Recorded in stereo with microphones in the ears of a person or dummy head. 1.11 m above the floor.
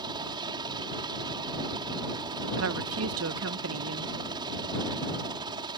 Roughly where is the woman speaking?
Right.